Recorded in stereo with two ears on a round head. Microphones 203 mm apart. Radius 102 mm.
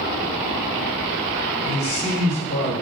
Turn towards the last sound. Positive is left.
turn(degrees=50)  # may be behind; listen again after turning